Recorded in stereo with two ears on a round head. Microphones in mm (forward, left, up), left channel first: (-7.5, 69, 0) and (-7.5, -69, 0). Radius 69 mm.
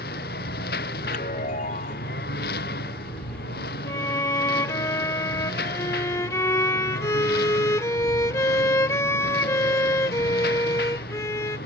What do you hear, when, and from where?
0.0 s a lawn mower: 65° left (ahead or behind)
1.0 s a chime: 50° left (ahead or behind)
3.9 s a violin: 20° left (ahead or behind)